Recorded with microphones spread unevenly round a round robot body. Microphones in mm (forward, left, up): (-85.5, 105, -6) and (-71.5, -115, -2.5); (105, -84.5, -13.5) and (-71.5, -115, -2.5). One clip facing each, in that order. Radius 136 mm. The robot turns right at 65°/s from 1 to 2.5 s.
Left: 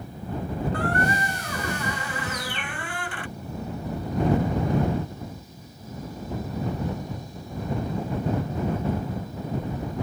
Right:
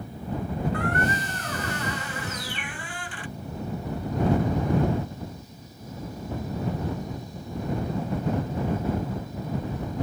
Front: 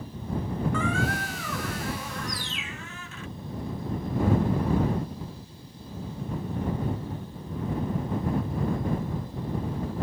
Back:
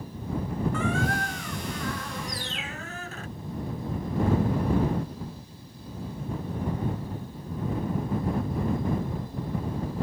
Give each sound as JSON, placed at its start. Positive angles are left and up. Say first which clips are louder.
{"t": 0.7, "sound": "a squeak", "louder": "left 2 dB, back 1 dB", "azimuth_deg": 30}
{"t": 2.3, "sound": "a bird", "louder": "left 2 dB, back 1 dB", "azimuth_deg": 15}